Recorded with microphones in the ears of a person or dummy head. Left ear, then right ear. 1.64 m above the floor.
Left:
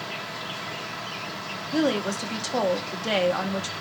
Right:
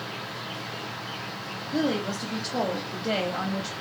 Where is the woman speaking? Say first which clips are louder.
Left 3 dB; 60° left (ahead or behind), 0.9 m.